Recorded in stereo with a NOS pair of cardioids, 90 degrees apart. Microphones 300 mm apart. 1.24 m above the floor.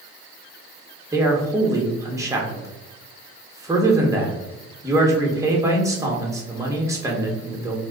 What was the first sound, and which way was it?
A man speaking, 10° right.